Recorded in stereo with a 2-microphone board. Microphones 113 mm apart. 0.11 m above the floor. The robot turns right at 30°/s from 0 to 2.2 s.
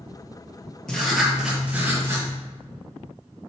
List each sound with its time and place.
0.9 s writing: 175° left, 3 m; by 2.3 s 150° right, 3 m